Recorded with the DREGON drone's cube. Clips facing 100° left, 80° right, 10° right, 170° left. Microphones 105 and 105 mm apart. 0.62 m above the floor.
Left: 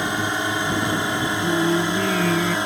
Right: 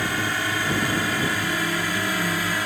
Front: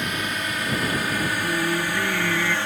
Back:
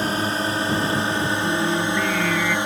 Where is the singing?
75° left.